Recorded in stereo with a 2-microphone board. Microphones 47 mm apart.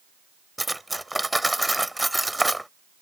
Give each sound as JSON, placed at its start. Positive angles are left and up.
{"t": 0.6, "sound": "cutlery clinking", "side_deg": -5}